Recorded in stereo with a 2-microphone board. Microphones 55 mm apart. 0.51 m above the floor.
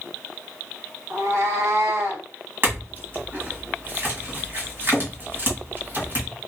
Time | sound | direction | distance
1.1 | a cat meowing | 65° right (ahead or behind) | 1.3 m
2.6 | a clink | 45° right (ahead or behind) | 1.7 m